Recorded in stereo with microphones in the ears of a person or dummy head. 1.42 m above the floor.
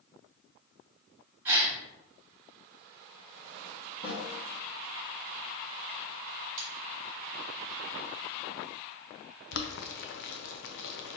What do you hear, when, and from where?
1.4 s a gasp: 15° right (ahead or behind), 1.5 m
4.0 s a snare drum: 30° left (ahead or behind), 1.4 m
6.6 s cutlery clinking: 45° right (ahead or behind), 1.0 m
9.5 s boiling: 65° left (ahead or behind), 0.6 m